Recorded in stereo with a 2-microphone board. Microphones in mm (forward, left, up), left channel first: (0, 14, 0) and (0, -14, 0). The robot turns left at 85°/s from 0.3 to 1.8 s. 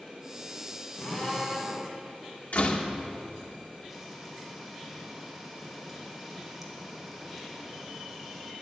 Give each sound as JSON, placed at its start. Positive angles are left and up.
{"t": 0.9, "sound": "a drill", "azimuth_deg": 50, "distance_m": 6.5}
{"t": 2.5, "sound": "a door slam", "side_deg": 55, "distance_m": 1.5}
{"t": 3.9, "sound": "frying", "side_deg": -5, "distance_m": 2.5}